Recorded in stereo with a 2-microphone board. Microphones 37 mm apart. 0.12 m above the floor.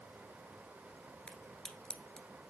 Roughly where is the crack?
Left.